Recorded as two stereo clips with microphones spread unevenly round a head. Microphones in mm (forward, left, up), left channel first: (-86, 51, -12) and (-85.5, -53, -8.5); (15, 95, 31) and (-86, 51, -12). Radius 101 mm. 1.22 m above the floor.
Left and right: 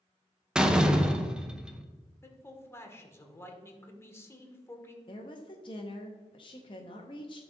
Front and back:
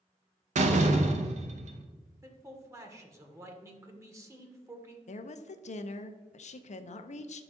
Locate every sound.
0.6 s a door slam: 170° right, 0.8 m
2.2 s a man speaking: 155° left, 1.4 m
5.1 s a woman speaking: 45° left, 0.6 m